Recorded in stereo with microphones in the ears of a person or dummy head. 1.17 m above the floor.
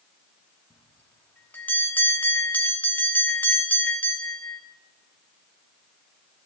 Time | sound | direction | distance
0.7 | a bell | 10° left (ahead or behind) | 1.2 m